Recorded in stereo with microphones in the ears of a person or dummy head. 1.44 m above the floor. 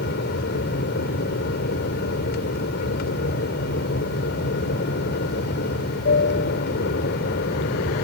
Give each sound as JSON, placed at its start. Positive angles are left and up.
{"t": 0.0, "sound": "an aircraft", "side_deg": 50}